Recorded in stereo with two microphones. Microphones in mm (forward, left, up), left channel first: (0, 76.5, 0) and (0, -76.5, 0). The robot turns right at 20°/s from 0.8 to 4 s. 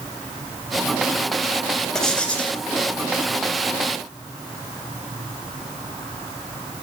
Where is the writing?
5° left (ahead or behind), 1.0 m; by 2.6 s 10° left (ahead or behind), 1.0 m.